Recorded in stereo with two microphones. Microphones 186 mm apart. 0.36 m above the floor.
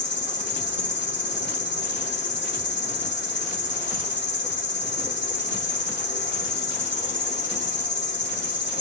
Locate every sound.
0.0 s an insect: 75° left (ahead or behind), 0.8 m